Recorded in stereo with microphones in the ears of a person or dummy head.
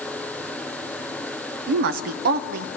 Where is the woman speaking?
60° right (ahead or behind), 0.7 m.